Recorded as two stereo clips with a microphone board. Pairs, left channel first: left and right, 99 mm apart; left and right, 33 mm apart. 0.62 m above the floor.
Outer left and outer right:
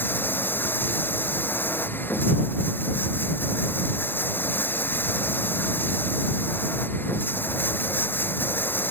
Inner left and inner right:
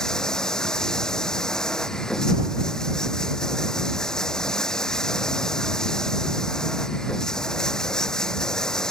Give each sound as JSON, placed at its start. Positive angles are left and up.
{"t": 0.0, "sound": "running water", "side_deg": 20}